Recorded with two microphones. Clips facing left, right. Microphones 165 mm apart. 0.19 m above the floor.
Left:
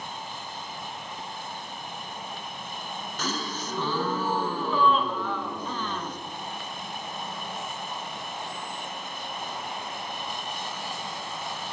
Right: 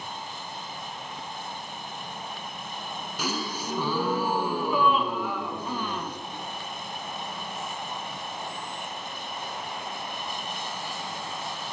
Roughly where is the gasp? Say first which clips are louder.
Right 1 dB; centre.